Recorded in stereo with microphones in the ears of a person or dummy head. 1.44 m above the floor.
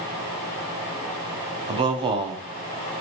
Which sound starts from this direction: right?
A man speaking, at 1.7 s.